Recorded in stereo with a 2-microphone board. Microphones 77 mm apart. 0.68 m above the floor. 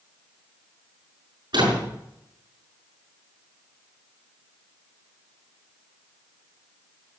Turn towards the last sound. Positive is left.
turn(degrees=-75)  # may be behind; listen again after turning